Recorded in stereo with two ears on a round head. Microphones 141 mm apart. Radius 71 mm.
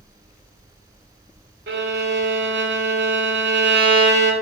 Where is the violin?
70° right (ahead or behind), 0.8 m.